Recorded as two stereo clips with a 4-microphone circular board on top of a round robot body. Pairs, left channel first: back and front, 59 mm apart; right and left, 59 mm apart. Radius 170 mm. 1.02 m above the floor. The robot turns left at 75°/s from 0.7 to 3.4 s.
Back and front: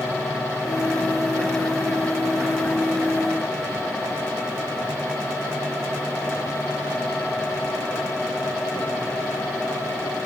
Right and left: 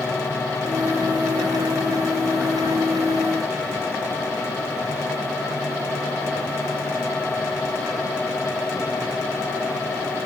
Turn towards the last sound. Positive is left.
No sound to turn to.